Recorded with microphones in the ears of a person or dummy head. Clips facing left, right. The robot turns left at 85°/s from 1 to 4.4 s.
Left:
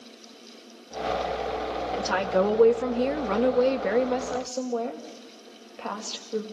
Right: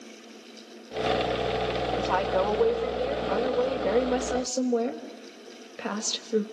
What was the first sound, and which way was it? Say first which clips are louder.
A woman speaking: left 3 dB; 175° right.